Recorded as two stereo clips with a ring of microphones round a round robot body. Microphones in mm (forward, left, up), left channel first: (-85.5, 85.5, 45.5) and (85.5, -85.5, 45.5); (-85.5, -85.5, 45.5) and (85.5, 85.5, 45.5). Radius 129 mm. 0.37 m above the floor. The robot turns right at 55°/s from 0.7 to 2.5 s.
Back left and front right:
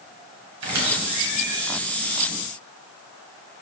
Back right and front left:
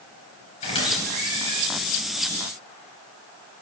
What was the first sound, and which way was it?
A squeak, 70° right.